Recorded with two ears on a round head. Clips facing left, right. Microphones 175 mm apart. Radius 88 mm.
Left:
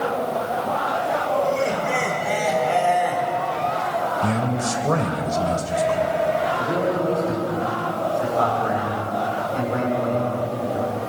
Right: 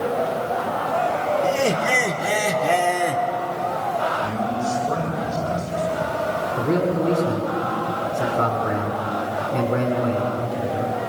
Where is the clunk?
I don't hear a clunk.